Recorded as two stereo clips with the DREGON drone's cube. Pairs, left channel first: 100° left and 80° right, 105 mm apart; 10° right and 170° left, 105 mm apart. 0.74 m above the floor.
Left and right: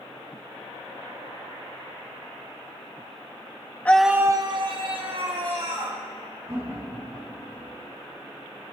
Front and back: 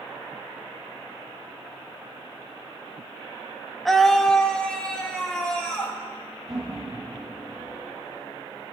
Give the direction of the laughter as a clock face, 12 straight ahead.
5 o'clock.